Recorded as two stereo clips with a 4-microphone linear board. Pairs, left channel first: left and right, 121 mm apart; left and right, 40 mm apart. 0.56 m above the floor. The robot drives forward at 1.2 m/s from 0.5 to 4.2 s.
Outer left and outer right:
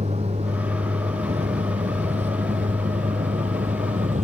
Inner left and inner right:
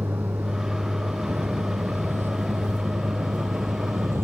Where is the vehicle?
60° right (ahead or behind); by 4.2 s 70° right (ahead or behind).